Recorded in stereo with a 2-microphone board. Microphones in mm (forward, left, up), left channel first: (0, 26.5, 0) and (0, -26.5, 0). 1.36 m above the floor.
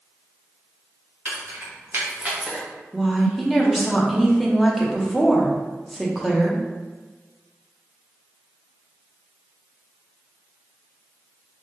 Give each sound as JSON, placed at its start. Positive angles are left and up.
{"t": 1.2, "sound": "keys jangling", "side_deg": -55, "distance_m": 1.5}
{"t": 2.9, "sound": "a woman speaking", "side_deg": 0, "distance_m": 0.8}